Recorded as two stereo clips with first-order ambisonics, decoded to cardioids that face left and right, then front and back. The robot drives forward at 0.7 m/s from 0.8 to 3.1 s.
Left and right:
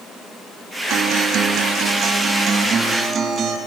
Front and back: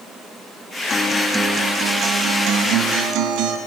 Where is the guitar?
65° right, 1.0 m; by 3.6 s 155° right, 1.6 m.